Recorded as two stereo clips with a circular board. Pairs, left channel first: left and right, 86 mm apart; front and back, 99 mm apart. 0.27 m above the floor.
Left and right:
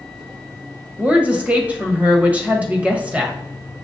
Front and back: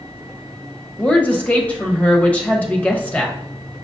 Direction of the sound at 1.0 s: 45° right.